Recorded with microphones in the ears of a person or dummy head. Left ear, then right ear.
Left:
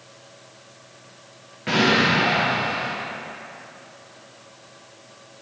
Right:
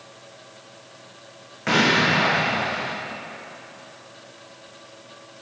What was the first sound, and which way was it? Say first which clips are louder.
An explosion: even; 35° right (ahead or behind).